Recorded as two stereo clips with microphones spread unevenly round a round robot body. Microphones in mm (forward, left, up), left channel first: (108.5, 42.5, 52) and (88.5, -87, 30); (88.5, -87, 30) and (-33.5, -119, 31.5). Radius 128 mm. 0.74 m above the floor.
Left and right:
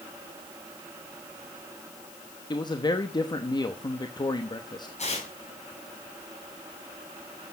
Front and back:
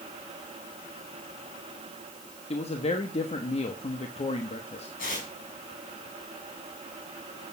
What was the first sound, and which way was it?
A man speaking, 25° left.